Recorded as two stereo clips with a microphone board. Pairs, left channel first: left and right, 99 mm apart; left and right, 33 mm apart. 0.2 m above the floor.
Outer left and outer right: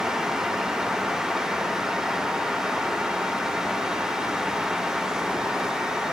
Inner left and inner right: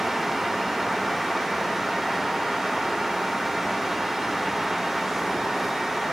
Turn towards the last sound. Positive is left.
No sound to turn to.